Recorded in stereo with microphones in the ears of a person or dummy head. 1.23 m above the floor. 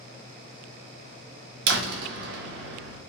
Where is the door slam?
65° right (ahead or behind), 1.1 m.